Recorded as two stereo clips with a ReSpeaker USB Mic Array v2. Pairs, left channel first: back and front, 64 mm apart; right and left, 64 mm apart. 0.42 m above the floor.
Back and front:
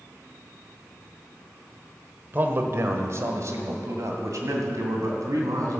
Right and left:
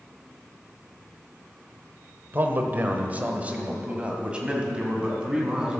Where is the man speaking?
50° left, 1.2 m; by 5.8 s 15° left, 3 m.